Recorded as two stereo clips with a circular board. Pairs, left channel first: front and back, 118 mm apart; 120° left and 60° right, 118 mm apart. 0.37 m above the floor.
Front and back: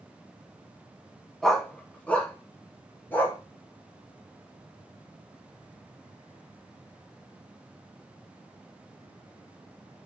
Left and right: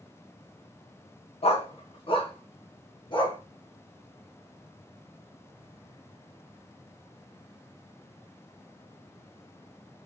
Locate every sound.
1.4 s a dog barking: 85° left, 0.7 m; by 3.4 s 75° left, 1.7 m